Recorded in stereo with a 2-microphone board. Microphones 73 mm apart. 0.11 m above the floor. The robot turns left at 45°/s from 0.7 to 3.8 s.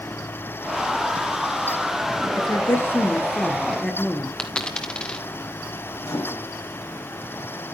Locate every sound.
2.4 s a woman speaking: 70° left, 1.6 m; by 4.3 s 5° left, 1.6 m
4.4 s a dropped coin: 10° left (ahead or behind), 1.6 m
6.0 s a microwave: 55° left (ahead or behind), 2.5 m